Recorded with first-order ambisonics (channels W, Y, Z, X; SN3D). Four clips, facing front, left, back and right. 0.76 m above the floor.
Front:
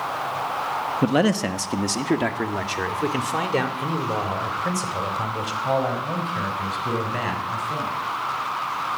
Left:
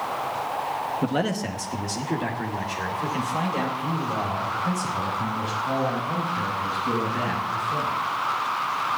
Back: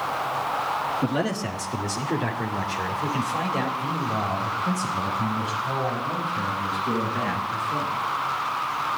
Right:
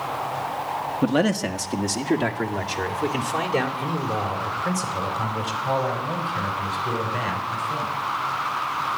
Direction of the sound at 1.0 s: 25° right.